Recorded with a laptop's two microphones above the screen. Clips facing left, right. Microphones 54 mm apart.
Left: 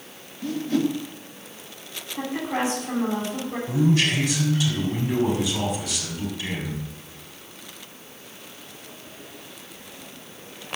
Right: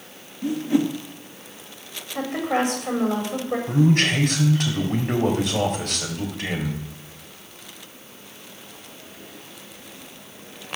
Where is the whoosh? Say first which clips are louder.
Right 2 dB; 20° right (ahead or behind), 1.2 m.